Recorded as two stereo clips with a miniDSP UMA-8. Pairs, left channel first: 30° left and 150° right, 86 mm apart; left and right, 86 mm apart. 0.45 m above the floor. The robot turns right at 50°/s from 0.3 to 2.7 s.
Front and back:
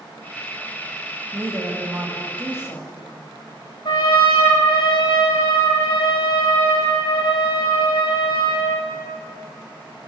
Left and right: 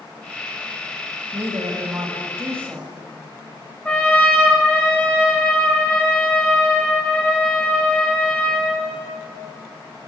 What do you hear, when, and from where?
1.3 s a woman speaking: 90° right, 2 m; by 2.9 s 20° right, 2 m
3.9 s a trumpet: 15° left, 2.5 m